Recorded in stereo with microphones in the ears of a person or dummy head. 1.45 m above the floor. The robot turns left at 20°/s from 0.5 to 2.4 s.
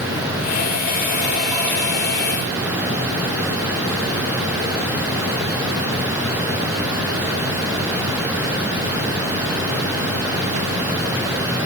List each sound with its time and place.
Only background noise.